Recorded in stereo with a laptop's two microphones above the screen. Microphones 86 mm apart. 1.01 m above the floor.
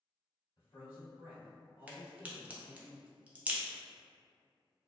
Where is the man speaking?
65° left (ahead or behind), 2.0 m.